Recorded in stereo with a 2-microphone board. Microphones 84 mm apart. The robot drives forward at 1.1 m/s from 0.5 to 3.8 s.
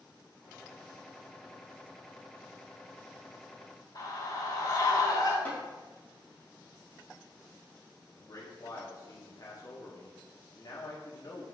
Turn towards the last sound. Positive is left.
turn(degrees=45)  # may be behind; listen again after turning